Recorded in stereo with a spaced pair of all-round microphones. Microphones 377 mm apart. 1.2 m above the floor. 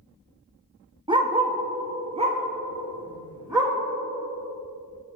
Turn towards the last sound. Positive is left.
turn(degrees=-10)  # may be behind; listen again after turning